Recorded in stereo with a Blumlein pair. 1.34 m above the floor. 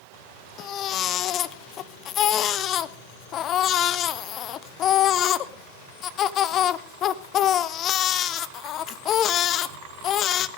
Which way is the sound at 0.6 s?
30° left.